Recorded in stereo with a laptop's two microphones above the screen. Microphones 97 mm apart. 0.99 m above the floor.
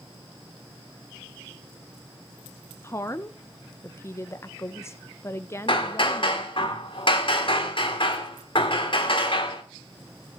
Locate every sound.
2.8 s a woman speaking: 30° left (ahead or behind), 0.6 m
5.7 s hammering: 60° left (ahead or behind), 1.9 m